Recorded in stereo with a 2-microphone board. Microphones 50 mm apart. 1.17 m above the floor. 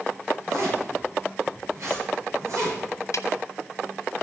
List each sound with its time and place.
0.5 s a zipper: 70° right (ahead or behind), 8 m
3.1 s a snare drum: 80° left, 0.7 m